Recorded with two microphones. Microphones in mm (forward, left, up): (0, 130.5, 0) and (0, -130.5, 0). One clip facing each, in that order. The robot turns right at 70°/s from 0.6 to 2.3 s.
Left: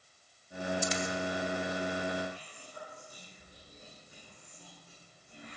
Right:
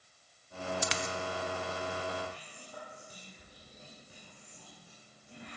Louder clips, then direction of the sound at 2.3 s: Left 2 dB; 75° right (ahead or behind).